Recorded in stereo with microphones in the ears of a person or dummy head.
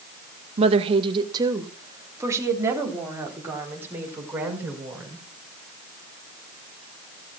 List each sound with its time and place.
0.6 s a woman speaking: 35° right (ahead or behind), 1.3 m; by 5.2 s 10° right (ahead or behind), 5.5 m